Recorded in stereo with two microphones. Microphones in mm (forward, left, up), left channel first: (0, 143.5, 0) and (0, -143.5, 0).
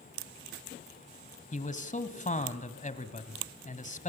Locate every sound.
1.5 s a man speaking: 25° left (ahead or behind), 2 m